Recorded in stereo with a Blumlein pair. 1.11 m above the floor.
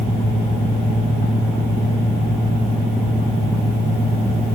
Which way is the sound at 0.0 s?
10° right.